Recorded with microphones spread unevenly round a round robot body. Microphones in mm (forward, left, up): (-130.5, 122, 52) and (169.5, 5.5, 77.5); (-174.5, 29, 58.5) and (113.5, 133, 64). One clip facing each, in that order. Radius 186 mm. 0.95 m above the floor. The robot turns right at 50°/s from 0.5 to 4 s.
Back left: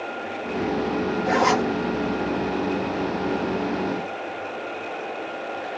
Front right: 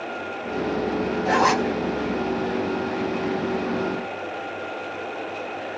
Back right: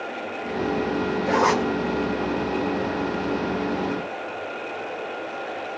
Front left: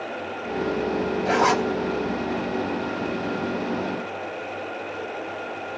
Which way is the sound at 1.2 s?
40° left.